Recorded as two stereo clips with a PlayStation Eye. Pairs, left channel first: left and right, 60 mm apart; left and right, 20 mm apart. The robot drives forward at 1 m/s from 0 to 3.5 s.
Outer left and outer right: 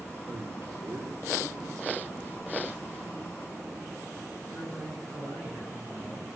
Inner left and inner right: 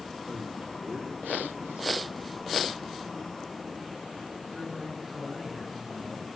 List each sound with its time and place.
0.3 s a man speaking: 40° right (ahead or behind), 3 m; by 1.9 s 70° right (ahead or behind), 2 m
2.2 s a phone buzzing: 75° left (ahead or behind), 2.5 m; by 3.9 s 80° left, 2.5 m
4.5 s a man speaking: 25° left (ahead or behind), 9.5 m